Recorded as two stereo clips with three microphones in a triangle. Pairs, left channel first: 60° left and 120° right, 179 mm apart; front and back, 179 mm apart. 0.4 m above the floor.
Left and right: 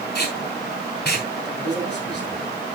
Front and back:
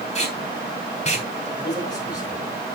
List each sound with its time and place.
0.1 s tape being pulled: 45° left, 3 m
1.6 s a man speaking: 70° left, 8 m